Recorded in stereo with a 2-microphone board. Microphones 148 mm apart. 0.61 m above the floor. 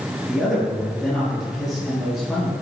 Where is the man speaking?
Centre (ahead or behind), 9 m.